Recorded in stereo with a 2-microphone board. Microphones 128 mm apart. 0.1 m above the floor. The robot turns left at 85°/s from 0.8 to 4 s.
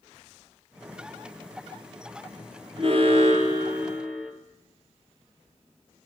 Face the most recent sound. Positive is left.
turn(degrees=-170)